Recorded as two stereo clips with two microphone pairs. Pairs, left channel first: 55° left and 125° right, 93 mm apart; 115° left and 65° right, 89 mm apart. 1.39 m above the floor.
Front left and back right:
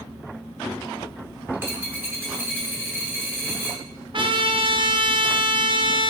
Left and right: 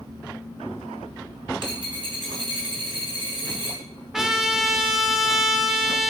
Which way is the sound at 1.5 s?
55° right.